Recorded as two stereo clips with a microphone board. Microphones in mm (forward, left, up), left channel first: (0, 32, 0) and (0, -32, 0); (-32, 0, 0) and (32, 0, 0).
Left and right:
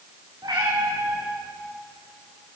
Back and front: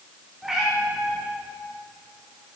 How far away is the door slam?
I don't hear a door slam.